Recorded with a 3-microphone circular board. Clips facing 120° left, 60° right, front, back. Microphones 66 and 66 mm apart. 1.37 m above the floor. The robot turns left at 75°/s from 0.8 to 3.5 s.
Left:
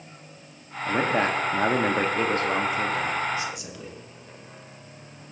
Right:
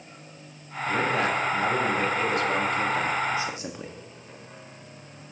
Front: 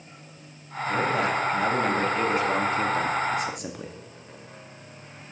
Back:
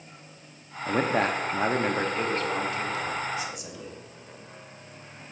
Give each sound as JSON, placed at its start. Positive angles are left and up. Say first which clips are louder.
{"t": 0.9, "sound": "a man speaking", "louder": "left 1 dB, even", "azimuth_deg": -175, "distance_m": 0.6}